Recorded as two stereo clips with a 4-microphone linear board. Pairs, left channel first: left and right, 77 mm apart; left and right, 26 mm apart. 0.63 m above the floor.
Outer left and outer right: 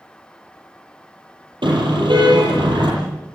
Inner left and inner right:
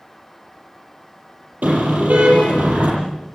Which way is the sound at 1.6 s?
85° right.